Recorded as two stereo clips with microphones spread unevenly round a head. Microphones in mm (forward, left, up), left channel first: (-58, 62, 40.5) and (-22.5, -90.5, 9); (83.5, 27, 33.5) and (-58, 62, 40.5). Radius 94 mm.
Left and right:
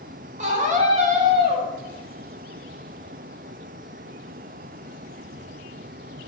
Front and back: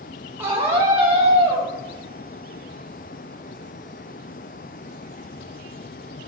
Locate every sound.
0.4 s a scream: 120° right, 4 m